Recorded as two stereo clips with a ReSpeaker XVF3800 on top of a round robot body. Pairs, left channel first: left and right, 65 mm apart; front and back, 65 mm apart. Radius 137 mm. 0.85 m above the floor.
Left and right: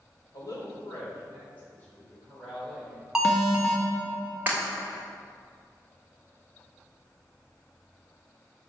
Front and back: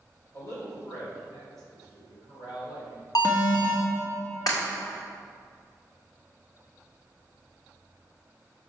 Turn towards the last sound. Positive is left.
turn(degrees=-25)